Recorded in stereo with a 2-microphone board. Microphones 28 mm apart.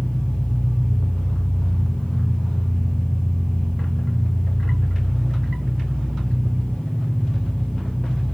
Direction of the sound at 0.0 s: 60° left (ahead or behind).